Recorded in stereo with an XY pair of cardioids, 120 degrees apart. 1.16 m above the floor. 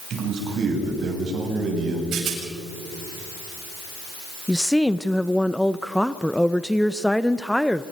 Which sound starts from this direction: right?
A rattle, at 2.1 s.